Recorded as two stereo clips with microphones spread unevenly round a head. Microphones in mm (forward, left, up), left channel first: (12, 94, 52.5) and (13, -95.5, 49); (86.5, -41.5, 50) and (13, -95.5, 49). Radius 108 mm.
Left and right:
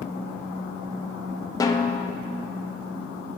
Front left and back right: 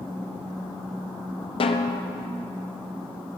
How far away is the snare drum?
About 0.5 m.